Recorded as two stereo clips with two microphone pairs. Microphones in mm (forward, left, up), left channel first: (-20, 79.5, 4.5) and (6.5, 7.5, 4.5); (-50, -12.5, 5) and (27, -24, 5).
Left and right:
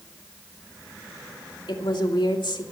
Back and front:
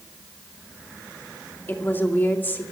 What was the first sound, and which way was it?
A woman speaking, 105° left.